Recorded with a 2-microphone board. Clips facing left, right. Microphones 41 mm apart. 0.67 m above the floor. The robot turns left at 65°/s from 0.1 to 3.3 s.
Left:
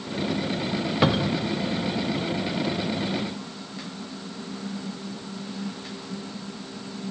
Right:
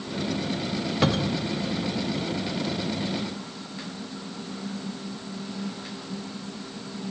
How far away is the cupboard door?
About 0.8 m.